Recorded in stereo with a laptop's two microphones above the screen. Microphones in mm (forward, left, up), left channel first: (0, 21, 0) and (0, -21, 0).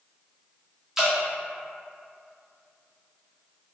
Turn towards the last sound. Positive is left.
turn(degrees=-10)  # may be behind; listen again after turning